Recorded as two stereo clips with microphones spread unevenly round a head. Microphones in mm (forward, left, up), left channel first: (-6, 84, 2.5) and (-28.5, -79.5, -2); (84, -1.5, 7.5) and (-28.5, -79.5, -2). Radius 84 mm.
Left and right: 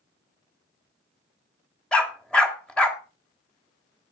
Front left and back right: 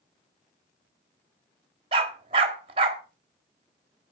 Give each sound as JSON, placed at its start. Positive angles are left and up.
{"t": 1.9, "sound": "a dog barking", "azimuth_deg": 165, "distance_m": 1.7}